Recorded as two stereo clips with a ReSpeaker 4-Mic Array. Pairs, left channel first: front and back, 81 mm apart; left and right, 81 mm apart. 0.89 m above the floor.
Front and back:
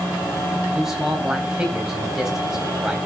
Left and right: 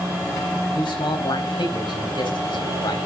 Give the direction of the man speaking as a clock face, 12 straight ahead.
9 o'clock.